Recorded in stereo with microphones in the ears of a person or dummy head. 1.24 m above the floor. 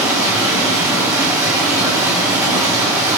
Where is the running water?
15° right (ahead or behind), 1.7 m.